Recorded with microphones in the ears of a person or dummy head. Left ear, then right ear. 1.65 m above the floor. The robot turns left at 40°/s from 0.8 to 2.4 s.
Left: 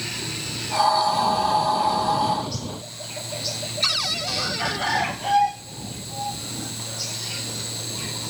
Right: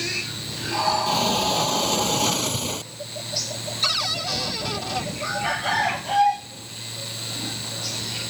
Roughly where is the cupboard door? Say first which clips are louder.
Even; centre.